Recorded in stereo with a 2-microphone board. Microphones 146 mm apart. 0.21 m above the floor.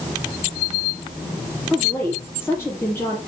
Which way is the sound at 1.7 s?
15° left (ahead or behind).